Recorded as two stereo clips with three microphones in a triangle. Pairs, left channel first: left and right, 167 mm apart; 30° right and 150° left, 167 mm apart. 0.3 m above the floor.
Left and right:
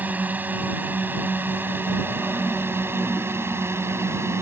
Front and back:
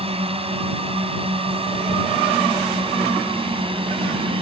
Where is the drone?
165° right; by 4.4 s 160° right.